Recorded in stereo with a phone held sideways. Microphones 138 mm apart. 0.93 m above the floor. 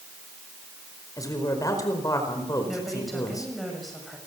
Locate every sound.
1.2 s a man speaking: 25° left (ahead or behind), 4.5 m
2.7 s a woman speaking: centre (ahead or behind), 6 m